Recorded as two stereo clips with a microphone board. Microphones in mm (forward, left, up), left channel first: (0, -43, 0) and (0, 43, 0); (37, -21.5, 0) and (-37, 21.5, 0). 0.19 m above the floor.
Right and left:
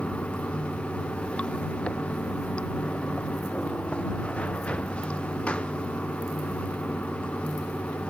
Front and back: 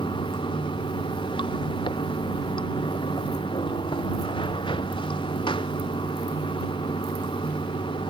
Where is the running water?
15° right.